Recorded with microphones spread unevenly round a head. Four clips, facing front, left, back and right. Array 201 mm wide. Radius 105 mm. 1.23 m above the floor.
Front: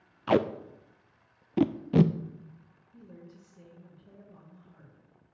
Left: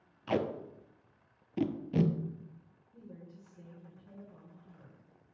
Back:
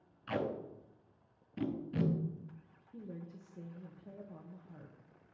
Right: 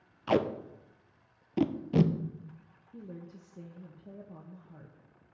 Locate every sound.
0.3 s tape being pulled: 10° right, 0.6 m
2.9 s a woman speaking: 110° right, 1.3 m